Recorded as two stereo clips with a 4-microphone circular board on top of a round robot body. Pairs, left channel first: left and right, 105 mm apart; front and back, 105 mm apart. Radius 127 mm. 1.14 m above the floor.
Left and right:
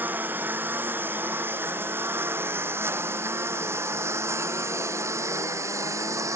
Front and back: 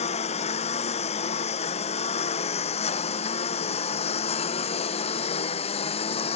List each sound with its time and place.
0.0 s a lawn mower: 20° right; by 6.4 s 30° right